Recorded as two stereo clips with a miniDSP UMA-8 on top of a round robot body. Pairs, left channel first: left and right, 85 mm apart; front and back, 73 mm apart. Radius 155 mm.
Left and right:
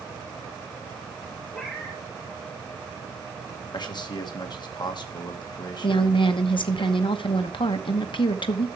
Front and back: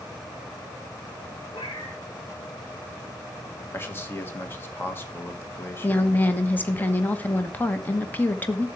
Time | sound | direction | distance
1.5 | a cat meowing | 15° left | 3 m
3.7 | a man speaking | 60° left | 1.8 m
5.8 | a woman speaking | 65° left | 1.2 m